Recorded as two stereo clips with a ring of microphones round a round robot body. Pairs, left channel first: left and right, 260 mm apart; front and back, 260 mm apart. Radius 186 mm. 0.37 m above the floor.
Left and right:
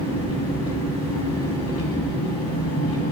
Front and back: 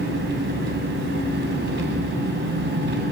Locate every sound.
0.0 s an engine running: 130° left, 2 m